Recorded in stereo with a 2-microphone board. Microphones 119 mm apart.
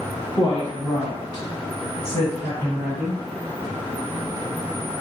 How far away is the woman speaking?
About 1.8 m.